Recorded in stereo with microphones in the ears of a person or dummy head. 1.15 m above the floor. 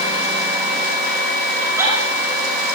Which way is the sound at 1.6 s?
15° right (ahead or behind).